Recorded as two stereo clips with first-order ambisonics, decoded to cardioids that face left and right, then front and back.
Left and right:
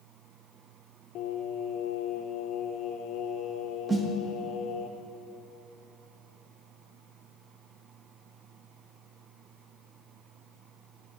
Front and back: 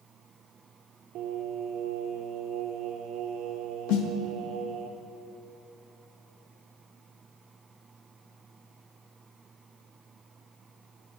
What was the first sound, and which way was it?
Singing, 135° left.